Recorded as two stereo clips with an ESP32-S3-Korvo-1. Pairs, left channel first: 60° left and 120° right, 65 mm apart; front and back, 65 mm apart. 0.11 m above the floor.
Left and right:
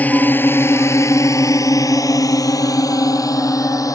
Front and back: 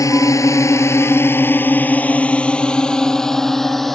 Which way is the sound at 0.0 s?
Straight ahead.